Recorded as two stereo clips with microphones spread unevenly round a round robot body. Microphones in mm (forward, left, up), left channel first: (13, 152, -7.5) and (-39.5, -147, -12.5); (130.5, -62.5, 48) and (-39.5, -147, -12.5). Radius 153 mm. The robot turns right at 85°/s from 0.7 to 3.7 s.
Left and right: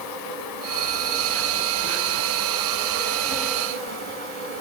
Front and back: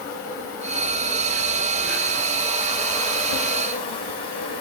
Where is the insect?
115° left, 5.5 m; by 4.6 s 10° left, 5.5 m.